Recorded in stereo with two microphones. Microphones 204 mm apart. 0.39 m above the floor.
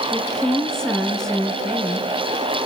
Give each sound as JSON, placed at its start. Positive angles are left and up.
{"t": 0.1, "sound": "a woman speaking", "side_deg": 5, "distance_m": 4.5}